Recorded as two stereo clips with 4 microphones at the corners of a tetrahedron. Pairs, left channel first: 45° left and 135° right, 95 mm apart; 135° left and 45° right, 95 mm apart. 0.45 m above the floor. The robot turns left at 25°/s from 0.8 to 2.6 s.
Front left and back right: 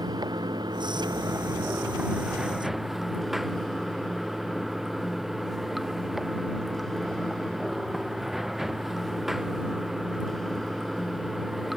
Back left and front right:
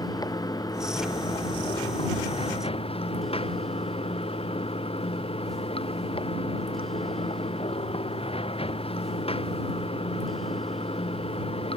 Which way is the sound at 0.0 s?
Straight behind.